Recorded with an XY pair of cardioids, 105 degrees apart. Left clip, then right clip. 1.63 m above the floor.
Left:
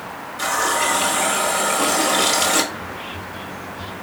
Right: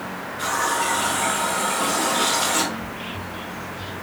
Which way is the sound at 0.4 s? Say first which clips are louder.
Left 3 dB; 60° left.